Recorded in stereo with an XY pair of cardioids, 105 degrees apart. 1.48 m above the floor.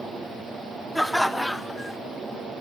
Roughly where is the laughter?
Ahead.